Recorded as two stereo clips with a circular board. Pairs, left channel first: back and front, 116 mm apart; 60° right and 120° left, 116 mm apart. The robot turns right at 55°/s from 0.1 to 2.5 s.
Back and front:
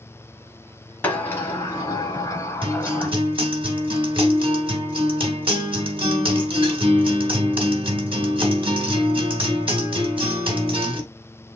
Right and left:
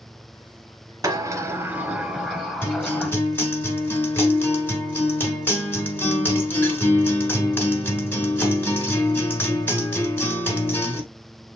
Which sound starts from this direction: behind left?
A sliding door, at 1.0 s.